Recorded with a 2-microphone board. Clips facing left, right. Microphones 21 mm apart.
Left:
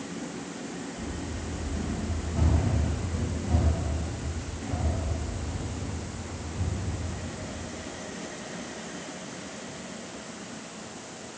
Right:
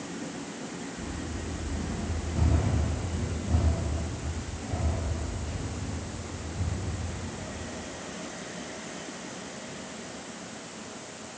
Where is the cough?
I don't hear a cough.